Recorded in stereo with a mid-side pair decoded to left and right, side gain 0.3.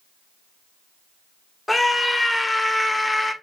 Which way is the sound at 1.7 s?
20° left.